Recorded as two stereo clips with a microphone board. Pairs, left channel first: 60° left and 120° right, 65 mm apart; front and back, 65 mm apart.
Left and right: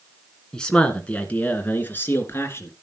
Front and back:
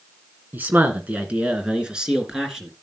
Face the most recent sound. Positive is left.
turn(degrees=95)